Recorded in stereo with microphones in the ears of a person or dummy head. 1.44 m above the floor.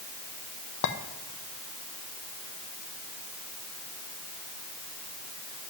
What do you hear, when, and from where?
0.8 s a clink: 65° left (ahead or behind), 1.0 m